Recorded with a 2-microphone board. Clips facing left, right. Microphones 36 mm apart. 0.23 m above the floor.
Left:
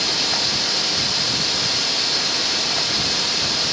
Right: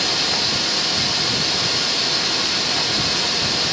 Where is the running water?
10° left (ahead or behind), 5 m.